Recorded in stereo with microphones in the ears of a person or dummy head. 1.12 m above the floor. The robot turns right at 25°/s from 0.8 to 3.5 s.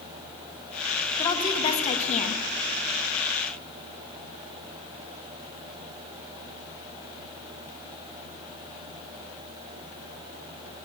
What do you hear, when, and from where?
1.2 s a woman speaking: 30° left, 0.8 m; by 2.4 s 60° left, 0.8 m